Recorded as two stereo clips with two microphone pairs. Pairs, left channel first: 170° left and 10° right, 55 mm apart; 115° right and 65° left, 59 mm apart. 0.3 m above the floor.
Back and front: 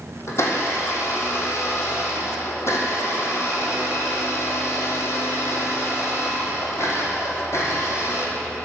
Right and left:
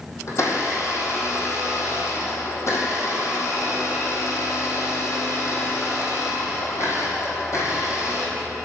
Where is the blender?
150° right, 2 m.